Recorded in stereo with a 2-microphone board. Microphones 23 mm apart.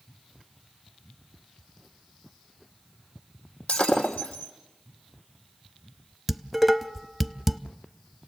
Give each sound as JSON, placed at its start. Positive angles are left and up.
{"t": 3.7, "sound": "breaking glass", "side_deg": 60, "distance_m": 3.0}
{"t": 6.3, "sound": "dishes clattering", "side_deg": -5, "distance_m": 0.7}